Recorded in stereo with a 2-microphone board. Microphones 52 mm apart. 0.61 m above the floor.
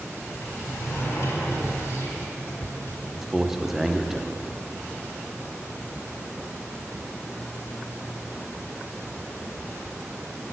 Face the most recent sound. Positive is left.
turn(degrees=-10)  # may be behind; listen again after turning